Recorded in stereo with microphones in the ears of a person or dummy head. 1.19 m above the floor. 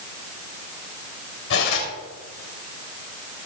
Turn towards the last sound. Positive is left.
turn(degrees=80)